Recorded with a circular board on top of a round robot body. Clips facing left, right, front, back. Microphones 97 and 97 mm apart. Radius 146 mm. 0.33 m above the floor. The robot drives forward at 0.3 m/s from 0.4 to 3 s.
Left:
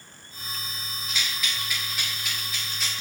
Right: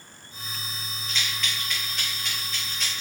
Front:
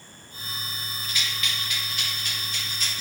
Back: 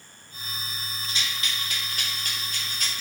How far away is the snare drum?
I don't hear a snare drum.